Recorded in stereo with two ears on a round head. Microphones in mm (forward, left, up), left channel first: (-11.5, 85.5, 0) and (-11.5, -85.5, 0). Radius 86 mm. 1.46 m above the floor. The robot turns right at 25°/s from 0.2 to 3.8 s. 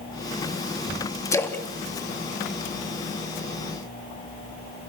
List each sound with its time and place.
1.3 s a splash: 15° left (ahead or behind), 2.5 m; by 3.2 s 30° right (ahead or behind), 2.5 m